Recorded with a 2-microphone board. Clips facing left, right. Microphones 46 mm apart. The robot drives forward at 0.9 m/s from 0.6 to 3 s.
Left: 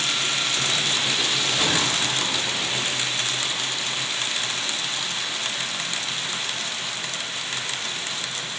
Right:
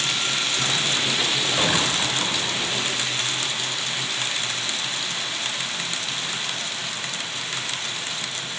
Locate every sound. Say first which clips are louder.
1.6 s a gunshot: right 2 dB; 25° right (ahead or behind), 9 m; by 2.8 s 30° right (ahead or behind), 8 m